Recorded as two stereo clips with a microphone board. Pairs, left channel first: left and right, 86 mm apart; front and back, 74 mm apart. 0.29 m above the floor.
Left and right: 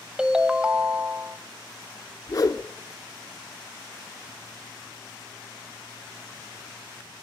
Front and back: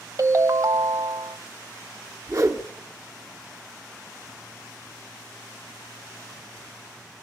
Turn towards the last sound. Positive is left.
turn(degrees=135)